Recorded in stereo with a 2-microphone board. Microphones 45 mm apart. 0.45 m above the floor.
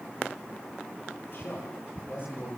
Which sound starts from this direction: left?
A man speaking, at 1.3 s.